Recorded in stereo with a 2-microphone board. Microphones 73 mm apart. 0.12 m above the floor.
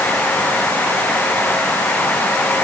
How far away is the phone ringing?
I don't hear a phone ringing.